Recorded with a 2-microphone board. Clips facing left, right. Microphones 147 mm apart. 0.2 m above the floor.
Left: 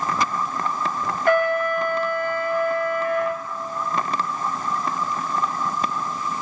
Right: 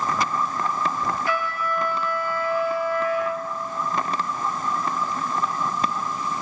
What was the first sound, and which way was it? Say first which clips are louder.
A trumpet: left 7 dB; 55° left (ahead or behind).